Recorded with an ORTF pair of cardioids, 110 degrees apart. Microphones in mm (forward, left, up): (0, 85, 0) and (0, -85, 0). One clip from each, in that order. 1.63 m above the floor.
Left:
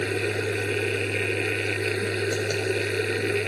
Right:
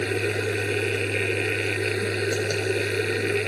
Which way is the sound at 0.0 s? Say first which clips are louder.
Right 1 dB; 10° right.